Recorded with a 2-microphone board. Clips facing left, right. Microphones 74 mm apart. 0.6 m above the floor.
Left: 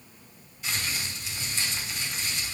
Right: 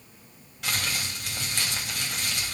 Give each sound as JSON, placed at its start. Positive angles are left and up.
{"t": 0.6, "sound": "crumpling", "side_deg": -75, "distance_m": 3.5}